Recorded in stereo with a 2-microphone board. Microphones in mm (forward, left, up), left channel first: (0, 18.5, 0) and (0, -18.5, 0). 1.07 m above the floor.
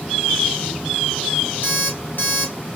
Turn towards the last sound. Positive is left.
turn(degrees=55)  # may be behind; listen again after turning